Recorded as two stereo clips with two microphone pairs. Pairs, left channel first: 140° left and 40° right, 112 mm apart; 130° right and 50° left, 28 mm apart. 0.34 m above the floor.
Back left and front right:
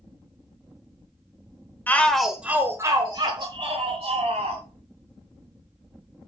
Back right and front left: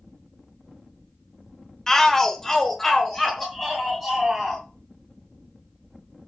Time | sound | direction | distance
1.9 | a shout | 175° left | 1.0 m